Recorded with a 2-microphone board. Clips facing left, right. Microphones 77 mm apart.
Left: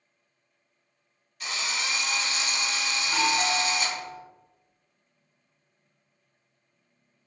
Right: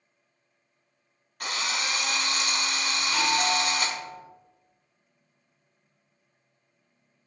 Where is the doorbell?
20° left (ahead or behind), 1.3 m.